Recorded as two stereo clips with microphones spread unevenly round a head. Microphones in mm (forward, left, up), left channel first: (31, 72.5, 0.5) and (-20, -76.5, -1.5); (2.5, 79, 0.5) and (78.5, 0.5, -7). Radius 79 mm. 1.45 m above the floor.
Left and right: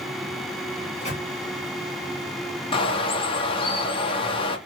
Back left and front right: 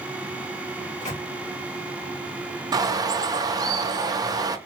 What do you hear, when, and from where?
0.8 s a microwave: 120° left, 1.6 m
2.7 s a bird: 10° left, 0.6 m